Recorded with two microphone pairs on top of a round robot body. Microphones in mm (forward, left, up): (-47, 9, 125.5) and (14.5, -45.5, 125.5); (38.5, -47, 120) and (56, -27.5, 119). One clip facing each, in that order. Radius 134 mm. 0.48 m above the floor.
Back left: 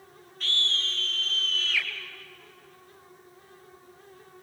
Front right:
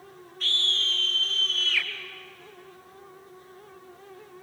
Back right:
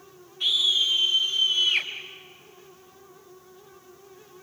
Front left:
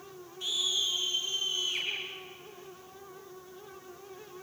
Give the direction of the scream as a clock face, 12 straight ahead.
4 o'clock.